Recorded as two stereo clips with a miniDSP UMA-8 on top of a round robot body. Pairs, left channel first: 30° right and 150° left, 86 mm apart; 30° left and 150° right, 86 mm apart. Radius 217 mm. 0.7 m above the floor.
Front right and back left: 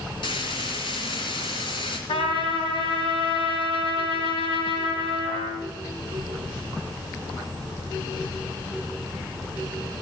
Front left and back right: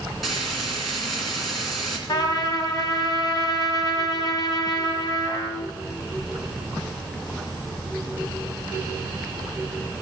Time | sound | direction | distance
0.2 | frying | 60° right | 1.9 m
2.1 | a trumpet | 15° right | 2.5 m